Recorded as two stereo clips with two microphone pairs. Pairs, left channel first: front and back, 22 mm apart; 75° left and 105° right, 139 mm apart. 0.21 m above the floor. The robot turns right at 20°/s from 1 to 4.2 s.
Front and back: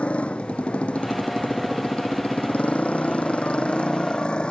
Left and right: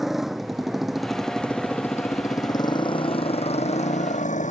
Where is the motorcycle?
15° right; by 4.5 s 50° left.